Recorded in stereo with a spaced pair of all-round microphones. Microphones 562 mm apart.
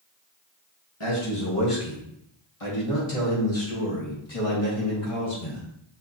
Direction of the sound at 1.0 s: 60° left (ahead or behind).